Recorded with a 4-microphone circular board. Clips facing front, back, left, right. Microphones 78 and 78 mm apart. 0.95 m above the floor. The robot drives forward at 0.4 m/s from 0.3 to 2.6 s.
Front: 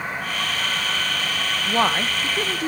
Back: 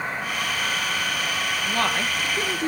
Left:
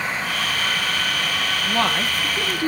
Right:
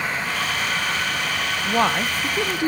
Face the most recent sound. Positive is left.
turn(degrees=-85)